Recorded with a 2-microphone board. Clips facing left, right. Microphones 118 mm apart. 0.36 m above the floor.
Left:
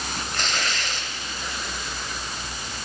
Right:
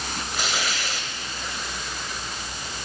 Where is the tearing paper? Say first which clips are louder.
Right 1 dB; 10° right (ahead or behind), 1.5 m.